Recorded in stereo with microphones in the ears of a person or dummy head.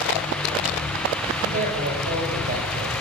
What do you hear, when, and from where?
1.4 s a man speaking: 50° right (ahead or behind), 7 m